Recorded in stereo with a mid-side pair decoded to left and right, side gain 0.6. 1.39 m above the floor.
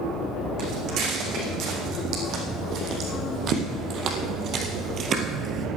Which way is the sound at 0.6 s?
60° right.